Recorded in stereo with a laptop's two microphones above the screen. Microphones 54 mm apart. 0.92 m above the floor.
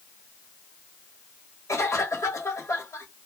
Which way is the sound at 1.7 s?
60° left (ahead or behind).